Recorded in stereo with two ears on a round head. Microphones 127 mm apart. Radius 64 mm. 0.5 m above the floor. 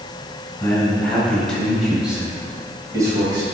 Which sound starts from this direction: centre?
A man speaking, at 0.6 s.